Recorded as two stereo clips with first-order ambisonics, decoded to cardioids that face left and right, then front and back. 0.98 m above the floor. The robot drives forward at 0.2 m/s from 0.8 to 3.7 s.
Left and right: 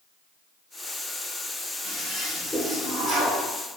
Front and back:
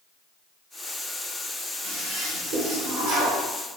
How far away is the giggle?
No giggle in this recording.